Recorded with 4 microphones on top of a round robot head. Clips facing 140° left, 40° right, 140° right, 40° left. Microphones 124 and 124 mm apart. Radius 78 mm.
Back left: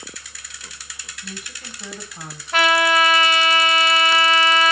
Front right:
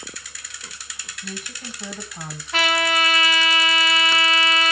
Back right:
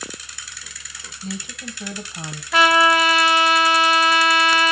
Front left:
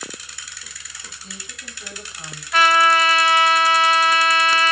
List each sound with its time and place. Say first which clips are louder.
1.2 s a woman speaking: front right 3 dB, back right 12 dB; 130° right, 1.2 m
2.5 s a trumpet: back left 5 dB, even; 165° right, 1.2 m